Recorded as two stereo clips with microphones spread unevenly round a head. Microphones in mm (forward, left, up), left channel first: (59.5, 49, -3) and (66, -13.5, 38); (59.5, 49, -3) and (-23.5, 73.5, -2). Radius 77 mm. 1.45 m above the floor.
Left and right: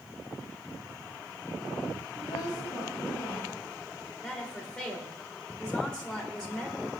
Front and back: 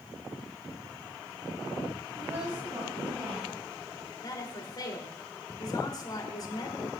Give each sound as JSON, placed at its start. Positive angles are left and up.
{"t": 2.2, "sound": "a woman speaking", "azimuth_deg": 120, "distance_m": 7.5}
{"t": 4.2, "sound": "a woman speaking", "azimuth_deg": 20, "distance_m": 3.5}